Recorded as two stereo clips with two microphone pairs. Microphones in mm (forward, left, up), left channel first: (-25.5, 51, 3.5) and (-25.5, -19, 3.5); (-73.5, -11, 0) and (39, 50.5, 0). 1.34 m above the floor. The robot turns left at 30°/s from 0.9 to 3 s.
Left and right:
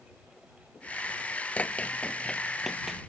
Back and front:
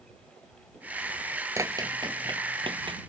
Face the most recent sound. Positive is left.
turn(degrees=-10)